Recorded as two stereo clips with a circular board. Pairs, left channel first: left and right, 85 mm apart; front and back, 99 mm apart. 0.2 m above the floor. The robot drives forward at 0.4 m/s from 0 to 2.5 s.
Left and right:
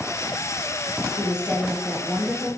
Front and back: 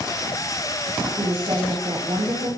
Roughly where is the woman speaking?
Behind.